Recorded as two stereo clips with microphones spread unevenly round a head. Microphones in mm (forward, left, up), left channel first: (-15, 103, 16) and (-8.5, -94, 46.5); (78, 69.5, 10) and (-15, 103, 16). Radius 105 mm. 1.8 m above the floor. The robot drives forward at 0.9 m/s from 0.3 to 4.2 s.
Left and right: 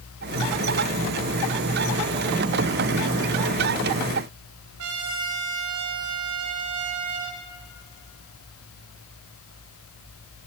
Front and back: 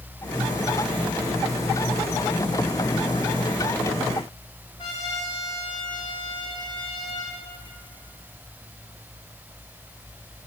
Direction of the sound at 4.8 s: 90° right.